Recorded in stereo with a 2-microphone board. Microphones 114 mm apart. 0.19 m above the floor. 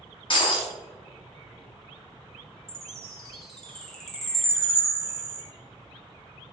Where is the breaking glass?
45° left (ahead or behind), 1.0 m.